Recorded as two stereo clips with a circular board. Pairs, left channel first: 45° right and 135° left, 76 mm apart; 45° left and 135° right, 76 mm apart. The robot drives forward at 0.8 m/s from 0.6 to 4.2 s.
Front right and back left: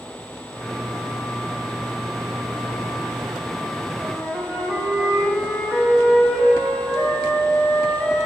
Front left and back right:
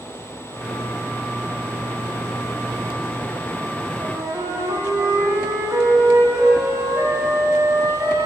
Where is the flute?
120° right, 1.5 m; by 8.3 s 125° right, 1.5 m.